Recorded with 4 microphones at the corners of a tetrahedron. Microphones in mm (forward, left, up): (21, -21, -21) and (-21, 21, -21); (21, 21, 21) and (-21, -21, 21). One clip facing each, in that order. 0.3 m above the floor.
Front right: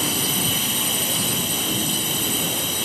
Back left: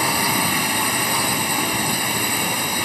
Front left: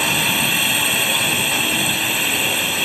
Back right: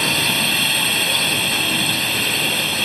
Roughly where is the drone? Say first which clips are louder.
Back left 5 dB, front left 1 dB; behind left.